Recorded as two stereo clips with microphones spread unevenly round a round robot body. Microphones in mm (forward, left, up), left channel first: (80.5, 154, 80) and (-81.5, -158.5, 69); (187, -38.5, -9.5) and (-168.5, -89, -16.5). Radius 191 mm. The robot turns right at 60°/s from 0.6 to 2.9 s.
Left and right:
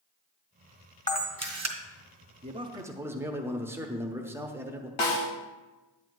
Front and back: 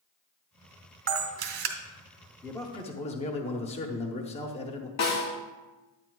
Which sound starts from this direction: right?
A man speaking, at 2.4 s.